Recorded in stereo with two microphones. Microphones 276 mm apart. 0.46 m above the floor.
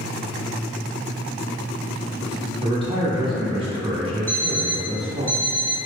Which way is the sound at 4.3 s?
10° left (ahead or behind).